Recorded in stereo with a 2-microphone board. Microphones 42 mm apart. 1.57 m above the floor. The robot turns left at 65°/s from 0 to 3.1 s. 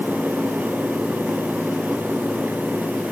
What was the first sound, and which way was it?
Only background noise.